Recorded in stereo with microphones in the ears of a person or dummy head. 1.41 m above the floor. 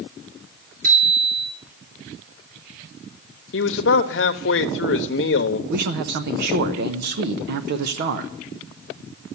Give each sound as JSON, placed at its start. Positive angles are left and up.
{"t": 0.8, "sound": "a bicycle bell", "side_deg": -45, "distance_m": 3.5}
{"t": 3.5, "sound": "a man speaking", "side_deg": 60, "distance_m": 1.0}
{"t": 5.7, "sound": "a man speaking", "side_deg": -55, "distance_m": 0.7}